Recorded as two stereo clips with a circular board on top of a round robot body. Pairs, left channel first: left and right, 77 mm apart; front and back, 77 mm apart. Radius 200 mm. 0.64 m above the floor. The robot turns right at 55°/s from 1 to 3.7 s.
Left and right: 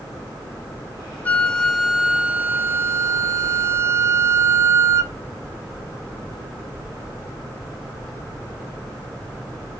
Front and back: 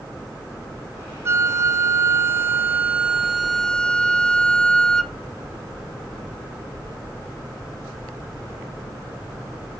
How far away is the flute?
About 0.7 m.